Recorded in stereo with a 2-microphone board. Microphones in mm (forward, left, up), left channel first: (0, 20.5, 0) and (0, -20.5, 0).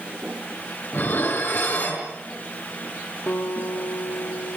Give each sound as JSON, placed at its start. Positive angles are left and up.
{"t": 0.9, "sound": "dishes clattering", "side_deg": 55, "distance_m": 6.0}
{"t": 3.3, "sound": "a guitar", "side_deg": 80, "distance_m": 5.0}